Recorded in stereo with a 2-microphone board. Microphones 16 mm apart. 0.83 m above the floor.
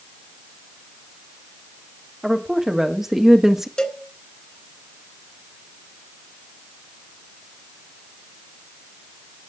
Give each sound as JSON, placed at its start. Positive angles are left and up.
{"t": 2.2, "sound": "a woman speaking", "side_deg": -25, "distance_m": 2.5}
{"t": 3.8, "sound": "a cowbell", "side_deg": 55, "distance_m": 1.7}